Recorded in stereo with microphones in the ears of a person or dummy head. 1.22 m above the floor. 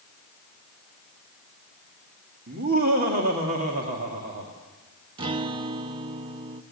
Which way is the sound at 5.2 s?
25° right (ahead or behind).